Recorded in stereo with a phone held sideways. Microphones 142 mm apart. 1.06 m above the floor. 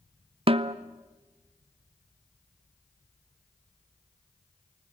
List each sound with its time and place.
0.5 s a snare drum: 40° right (ahead or behind), 0.6 m